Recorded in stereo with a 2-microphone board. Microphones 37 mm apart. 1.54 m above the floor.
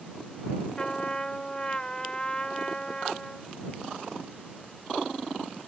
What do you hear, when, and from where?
0.8 s a trumpet: 25° left (ahead or behind)